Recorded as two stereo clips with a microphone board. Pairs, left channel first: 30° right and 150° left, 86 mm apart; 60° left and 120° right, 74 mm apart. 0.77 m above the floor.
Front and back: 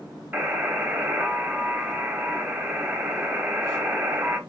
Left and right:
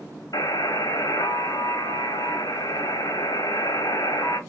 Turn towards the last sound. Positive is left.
turn(degrees=85)